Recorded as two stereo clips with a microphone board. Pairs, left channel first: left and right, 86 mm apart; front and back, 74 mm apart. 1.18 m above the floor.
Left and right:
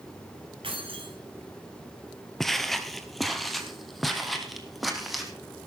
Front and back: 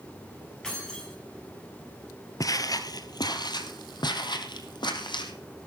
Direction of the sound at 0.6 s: 80° right.